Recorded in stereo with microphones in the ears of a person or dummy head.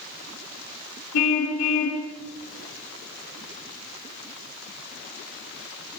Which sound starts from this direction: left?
A car horn, at 1.1 s.